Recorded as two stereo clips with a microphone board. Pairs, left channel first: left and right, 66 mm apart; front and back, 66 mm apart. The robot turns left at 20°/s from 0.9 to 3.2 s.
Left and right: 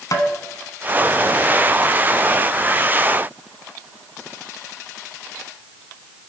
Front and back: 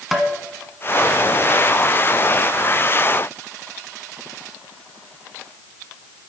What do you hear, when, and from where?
0.1 s tapping: 90° left, 1.3 m